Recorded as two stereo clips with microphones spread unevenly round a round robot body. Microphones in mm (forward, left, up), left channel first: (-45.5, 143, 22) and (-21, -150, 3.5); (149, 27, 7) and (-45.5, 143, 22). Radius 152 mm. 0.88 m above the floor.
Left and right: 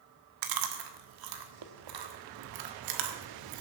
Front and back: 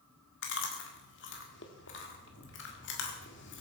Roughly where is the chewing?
Right.